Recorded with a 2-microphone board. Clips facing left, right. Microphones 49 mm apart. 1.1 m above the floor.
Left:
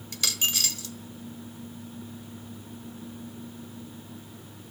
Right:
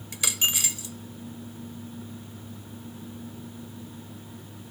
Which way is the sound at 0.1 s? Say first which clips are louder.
Right 1 dB; 20° right (ahead or behind).